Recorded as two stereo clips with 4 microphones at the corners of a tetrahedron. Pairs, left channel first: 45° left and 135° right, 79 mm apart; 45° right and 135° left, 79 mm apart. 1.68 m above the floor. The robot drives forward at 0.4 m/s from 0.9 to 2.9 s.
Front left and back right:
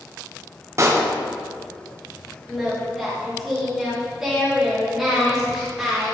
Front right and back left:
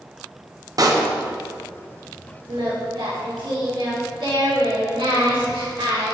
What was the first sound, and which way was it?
A pop, 175° left.